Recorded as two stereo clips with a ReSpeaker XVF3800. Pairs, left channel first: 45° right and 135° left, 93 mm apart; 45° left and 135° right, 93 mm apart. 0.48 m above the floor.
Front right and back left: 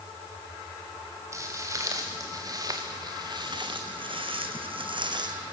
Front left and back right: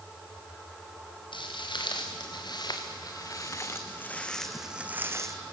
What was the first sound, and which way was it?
Footsteps, 75° left.